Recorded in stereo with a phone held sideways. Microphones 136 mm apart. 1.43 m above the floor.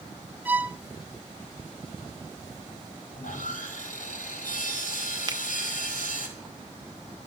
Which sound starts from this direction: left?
Sawing, at 3.1 s.